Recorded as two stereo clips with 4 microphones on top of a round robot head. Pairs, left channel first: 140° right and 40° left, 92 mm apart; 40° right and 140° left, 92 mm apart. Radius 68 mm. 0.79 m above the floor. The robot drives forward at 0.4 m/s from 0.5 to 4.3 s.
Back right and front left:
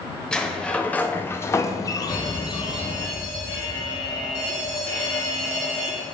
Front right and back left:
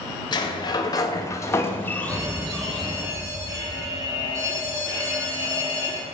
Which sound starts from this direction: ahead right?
A sliding door, at 0.3 s.